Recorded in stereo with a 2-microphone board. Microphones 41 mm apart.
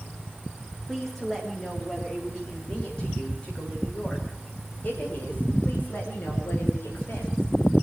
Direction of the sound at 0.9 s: 5° left (ahead or behind).